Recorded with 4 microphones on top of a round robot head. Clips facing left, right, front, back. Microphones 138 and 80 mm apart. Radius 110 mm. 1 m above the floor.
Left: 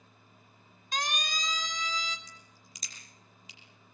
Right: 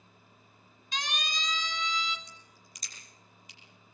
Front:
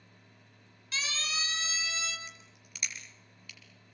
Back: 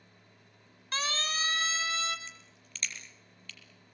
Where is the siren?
135° left, 4 m; by 2.2 s 140° left, 3 m.